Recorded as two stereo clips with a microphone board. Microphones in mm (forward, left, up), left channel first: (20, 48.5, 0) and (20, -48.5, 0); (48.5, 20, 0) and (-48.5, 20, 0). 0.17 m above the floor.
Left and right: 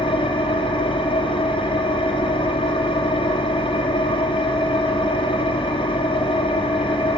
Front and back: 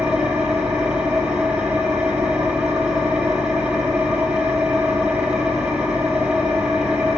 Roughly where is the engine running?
Left.